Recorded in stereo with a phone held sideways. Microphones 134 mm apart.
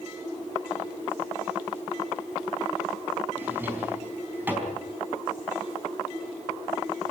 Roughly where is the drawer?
Centre.